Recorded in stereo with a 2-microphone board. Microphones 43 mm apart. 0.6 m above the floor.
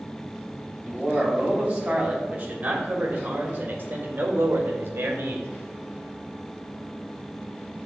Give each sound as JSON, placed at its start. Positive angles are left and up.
{"t": 0.8, "sound": "a man speaking", "side_deg": -25, "distance_m": 3.0}